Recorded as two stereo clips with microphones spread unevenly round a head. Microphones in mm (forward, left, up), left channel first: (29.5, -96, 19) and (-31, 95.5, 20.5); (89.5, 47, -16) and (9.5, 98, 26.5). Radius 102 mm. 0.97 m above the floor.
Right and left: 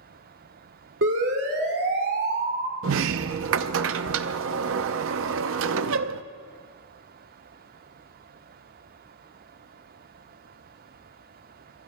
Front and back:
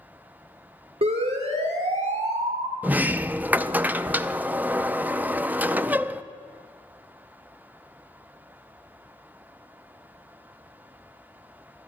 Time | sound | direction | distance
1.0 | a siren | 140° left | 2 m
2.8 | a sliding door | 80° left | 0.6 m